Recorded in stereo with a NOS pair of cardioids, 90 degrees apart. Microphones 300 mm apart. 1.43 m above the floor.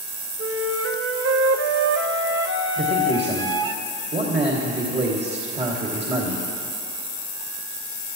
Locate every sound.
0.4 s a flute: 40° right, 1.2 m
2.8 s a man speaking: 35° right, 2.5 m